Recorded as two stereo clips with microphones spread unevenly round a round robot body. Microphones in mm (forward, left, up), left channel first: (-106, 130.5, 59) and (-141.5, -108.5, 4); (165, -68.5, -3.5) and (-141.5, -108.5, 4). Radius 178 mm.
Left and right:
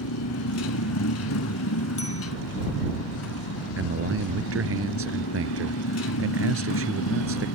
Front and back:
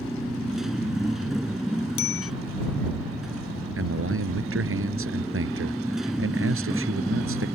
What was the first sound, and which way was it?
A motorcycle, 100° left.